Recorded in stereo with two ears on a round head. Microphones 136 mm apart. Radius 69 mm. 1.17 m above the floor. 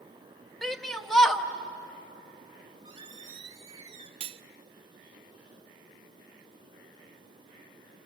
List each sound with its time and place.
0.6 s a shout: centre (ahead or behind), 1.3 m
2.6 s a squeak: 30° right (ahead or behind), 2.5 m
4.2 s cutlery clinking: 40° right (ahead or behind), 0.5 m